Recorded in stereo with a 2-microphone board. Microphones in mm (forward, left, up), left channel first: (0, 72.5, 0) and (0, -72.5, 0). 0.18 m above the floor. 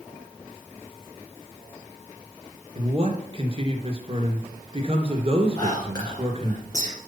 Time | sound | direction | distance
2.8 | a man speaking | 40° right (ahead or behind) | 2.5 m
5.6 | whispering | 25° left (ahead or behind) | 2.5 m